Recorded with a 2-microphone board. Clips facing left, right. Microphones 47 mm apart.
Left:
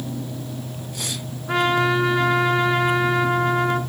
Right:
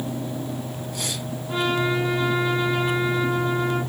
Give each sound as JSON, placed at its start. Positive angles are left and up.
{"t": 1.5, "sound": "a trumpet", "side_deg": 65, "distance_m": 1.3}